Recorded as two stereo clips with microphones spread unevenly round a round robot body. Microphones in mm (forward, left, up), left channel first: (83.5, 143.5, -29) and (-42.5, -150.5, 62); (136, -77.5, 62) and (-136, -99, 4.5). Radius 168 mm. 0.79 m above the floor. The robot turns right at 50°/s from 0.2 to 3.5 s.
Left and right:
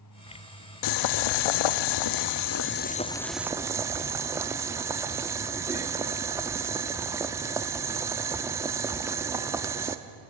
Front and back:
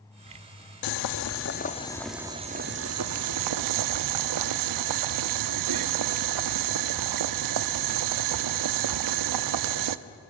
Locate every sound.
0.8 s boiling: 30° left, 0.5 m; by 10.0 s 165° left, 0.5 m